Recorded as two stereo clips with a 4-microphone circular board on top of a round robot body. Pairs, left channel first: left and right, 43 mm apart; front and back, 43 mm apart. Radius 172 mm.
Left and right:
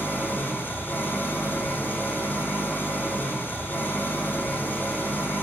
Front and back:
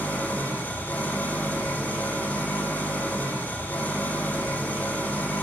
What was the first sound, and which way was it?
An engine running, 40° left.